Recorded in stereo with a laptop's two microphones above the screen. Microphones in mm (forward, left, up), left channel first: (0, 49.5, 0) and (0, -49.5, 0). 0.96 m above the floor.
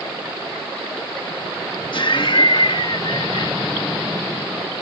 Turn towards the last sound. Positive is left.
turn(degrees=55)  # may be behind; listen again after turning